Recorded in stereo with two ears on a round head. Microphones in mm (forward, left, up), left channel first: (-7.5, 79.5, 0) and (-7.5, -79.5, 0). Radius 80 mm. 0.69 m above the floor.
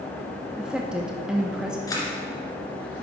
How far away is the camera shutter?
About 2 m.